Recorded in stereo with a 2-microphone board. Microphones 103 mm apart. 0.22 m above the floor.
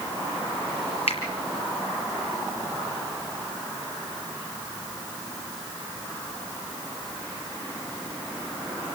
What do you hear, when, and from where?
1.1 s a finger snap: 70° left (ahead or behind), 5 m